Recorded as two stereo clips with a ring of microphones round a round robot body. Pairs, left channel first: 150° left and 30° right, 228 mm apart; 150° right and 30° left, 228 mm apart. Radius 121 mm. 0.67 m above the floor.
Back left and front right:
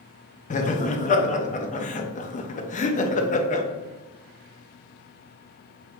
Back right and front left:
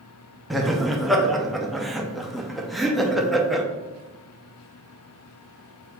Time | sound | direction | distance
0.5 | laughter | 120° left | 0.6 m